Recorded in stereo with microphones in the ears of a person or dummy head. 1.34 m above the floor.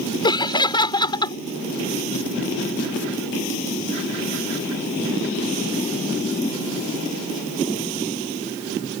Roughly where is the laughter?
Left.